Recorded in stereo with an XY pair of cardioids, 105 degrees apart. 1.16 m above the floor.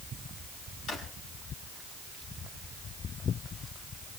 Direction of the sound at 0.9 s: 65° left.